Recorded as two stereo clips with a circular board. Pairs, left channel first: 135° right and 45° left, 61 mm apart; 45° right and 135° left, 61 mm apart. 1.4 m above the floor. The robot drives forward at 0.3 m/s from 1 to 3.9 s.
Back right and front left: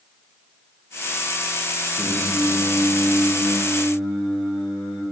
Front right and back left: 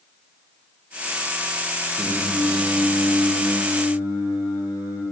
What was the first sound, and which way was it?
Singing, 145° left.